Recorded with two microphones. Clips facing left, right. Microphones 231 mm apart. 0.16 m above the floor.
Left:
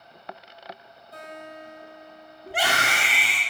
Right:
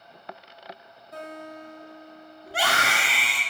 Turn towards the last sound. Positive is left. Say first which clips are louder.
# left 1 dB
turn(degrees=15)  # may be behind; listen again after turning